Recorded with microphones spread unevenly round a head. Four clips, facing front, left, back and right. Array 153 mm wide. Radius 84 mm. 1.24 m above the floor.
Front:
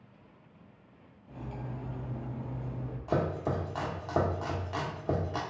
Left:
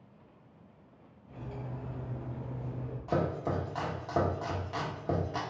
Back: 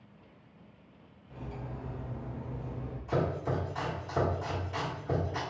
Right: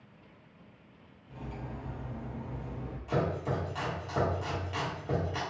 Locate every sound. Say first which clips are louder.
1.3 s cutlery clinking: even, front 1 dB; 5° left, 1.1 m
3.1 s chopping: even, front 1 dB; 20° left, 1.2 m